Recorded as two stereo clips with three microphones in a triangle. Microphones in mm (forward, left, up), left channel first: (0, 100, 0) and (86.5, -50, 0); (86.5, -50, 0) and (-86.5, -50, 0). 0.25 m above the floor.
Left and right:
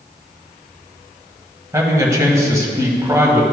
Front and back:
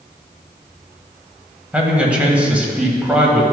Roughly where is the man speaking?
Right.